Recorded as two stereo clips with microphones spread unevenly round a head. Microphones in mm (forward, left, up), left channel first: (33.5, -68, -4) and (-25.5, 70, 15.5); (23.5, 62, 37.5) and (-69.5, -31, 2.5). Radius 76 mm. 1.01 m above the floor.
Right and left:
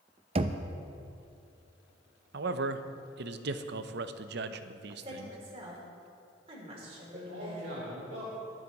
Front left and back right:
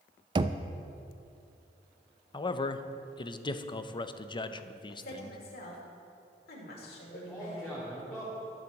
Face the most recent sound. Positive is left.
turn(degrees=130)